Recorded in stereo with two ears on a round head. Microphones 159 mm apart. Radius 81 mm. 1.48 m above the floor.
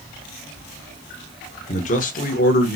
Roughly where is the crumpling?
No crumpling in this recording.